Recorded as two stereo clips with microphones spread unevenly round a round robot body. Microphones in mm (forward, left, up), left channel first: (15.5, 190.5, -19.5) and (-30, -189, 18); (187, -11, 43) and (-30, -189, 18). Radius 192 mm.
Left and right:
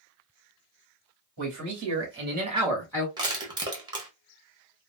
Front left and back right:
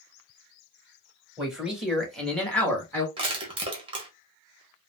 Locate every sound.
1.4 s a man speaking: 55° right, 2 m; by 3.1 s 120° left, 1.2 m
3.2 s crushing: 175° right, 0.9 m